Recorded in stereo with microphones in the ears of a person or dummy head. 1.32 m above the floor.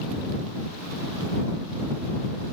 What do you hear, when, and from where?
Only background noise.